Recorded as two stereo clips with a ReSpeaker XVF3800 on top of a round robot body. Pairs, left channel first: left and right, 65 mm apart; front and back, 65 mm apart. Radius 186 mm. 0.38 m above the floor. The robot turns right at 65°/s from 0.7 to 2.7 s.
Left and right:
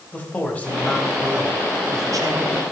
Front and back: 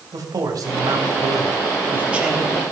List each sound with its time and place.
0.1 s a man speaking: 160° left, 3.5 m; by 2.6 s 75° right, 3.5 m